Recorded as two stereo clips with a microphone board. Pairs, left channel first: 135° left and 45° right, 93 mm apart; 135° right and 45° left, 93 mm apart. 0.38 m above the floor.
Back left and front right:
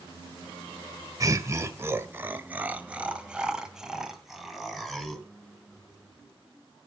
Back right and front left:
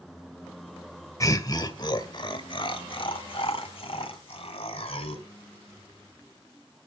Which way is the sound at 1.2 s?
90° right.